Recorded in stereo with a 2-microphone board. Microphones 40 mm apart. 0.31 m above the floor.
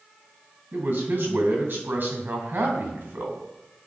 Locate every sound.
0.7 s a man speaking: 55° right (ahead or behind), 2 m